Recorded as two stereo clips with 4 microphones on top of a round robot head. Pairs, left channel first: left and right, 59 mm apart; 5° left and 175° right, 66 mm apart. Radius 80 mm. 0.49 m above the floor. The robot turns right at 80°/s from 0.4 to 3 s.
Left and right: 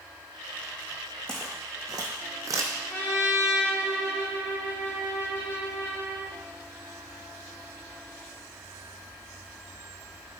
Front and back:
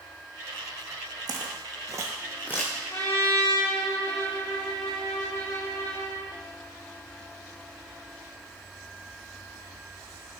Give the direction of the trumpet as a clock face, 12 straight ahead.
11 o'clock.